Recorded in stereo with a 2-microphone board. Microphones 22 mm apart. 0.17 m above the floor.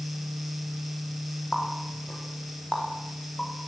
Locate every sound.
1.5 s a running tap: 55° left (ahead or behind), 7 m